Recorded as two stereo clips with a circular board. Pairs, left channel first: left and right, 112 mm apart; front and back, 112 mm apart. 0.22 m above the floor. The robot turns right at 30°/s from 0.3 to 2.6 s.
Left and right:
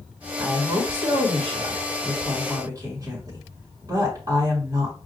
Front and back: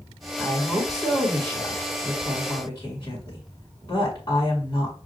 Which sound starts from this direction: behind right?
A woman speaking, at 0.4 s.